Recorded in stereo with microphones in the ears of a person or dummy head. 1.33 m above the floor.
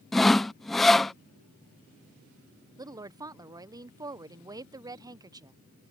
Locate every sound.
0.1 s sawing: centre (ahead or behind)
2.8 s a woman speaking: 15° right (ahead or behind)